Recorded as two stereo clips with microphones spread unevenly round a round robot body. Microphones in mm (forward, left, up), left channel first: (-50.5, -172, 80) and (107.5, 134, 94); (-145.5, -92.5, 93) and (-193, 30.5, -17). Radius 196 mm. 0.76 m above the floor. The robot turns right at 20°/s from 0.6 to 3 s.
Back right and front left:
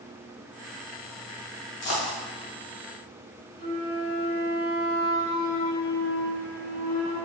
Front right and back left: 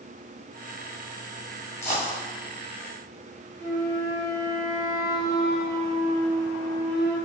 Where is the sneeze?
I don't hear a sneeze.